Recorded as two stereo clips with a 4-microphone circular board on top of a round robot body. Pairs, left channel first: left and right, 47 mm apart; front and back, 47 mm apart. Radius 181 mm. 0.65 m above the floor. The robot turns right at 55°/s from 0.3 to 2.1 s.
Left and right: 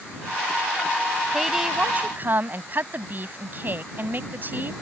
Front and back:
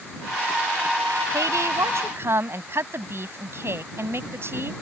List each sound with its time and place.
1.3 s a woman speaking: 175° left; by 4.7 s 145° right